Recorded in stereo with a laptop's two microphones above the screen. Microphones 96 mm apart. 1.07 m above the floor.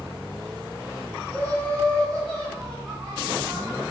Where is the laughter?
20° left (ahead or behind), 1.9 m; by 3.8 s 35° right (ahead or behind), 1.0 m.